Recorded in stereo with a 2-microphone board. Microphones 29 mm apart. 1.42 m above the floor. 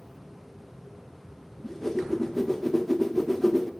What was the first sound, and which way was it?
A whoosh, 10° left (ahead or behind).